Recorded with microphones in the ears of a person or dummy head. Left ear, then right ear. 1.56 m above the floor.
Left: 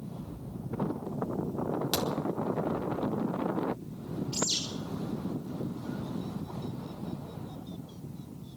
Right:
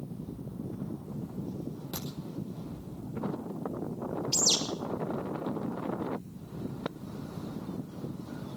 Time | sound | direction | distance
1.9 | a crack | 60° left (ahead or behind) | 4.5 m
4.3 | a bird | 40° right (ahead or behind) | 6 m